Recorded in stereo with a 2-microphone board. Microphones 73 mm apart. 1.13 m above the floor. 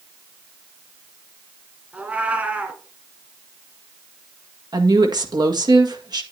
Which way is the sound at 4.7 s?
70° right (ahead or behind).